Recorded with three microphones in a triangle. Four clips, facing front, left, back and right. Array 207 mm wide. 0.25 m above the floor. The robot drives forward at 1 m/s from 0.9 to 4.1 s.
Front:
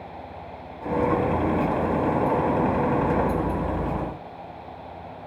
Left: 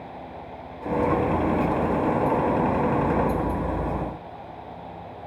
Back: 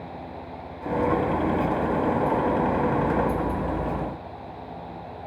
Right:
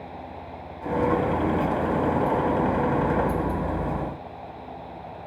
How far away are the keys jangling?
I don't hear keys jangling.